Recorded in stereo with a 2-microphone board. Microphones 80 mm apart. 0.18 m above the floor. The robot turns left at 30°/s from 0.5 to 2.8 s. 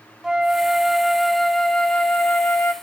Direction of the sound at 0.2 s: 5° right (ahead or behind).